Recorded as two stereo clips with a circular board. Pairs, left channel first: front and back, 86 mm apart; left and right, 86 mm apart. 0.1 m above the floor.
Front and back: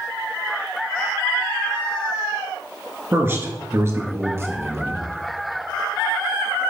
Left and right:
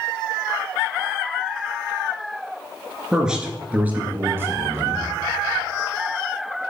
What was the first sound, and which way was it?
A man speaking, 170° right.